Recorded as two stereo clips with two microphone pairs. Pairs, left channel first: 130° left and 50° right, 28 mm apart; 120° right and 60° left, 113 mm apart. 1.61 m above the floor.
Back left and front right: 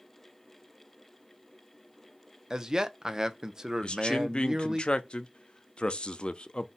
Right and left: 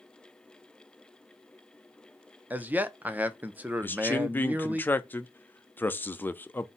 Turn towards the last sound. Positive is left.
turn(degrees=175)